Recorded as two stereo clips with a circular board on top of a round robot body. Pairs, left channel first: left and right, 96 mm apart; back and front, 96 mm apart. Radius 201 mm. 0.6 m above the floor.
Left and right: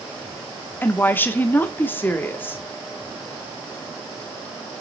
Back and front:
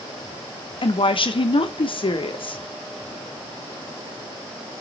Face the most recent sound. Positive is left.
turn(degrees=160)